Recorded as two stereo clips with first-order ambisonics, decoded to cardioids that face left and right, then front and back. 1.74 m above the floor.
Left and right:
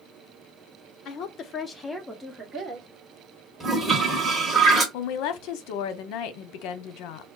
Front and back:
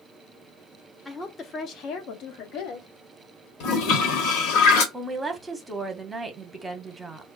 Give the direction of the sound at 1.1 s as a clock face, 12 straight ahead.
9 o'clock.